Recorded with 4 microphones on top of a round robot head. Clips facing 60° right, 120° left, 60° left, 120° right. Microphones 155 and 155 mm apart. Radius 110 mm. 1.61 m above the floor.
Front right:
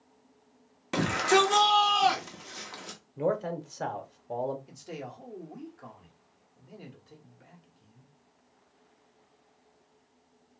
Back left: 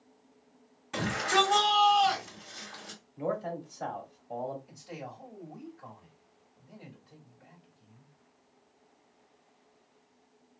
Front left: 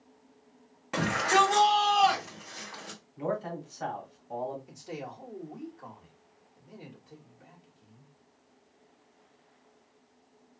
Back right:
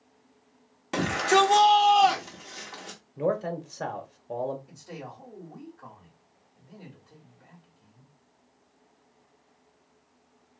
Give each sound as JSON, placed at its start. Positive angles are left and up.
{"t": 0.9, "sound": "a shout", "azimuth_deg": -60, "distance_m": 0.6}
{"t": 3.2, "sound": "a man speaking", "azimuth_deg": -85, "distance_m": 0.9}
{"t": 4.7, "sound": "a man speaking", "azimuth_deg": -15, "distance_m": 1.1}